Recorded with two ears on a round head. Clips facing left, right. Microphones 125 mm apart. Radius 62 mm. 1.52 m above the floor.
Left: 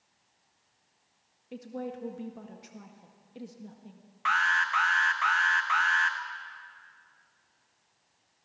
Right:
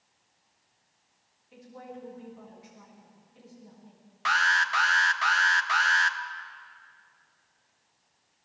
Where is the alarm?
45° right (ahead or behind), 1.1 m.